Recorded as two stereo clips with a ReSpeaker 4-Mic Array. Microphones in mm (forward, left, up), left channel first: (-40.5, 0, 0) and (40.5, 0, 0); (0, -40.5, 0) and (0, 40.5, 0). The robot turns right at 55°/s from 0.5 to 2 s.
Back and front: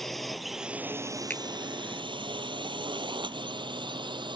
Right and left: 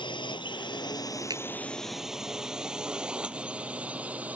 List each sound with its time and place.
0.0 s a drone: 90° right; by 4.4 s 20° left
1.3 s a finger snap: 110° left; by 1.4 s 120° left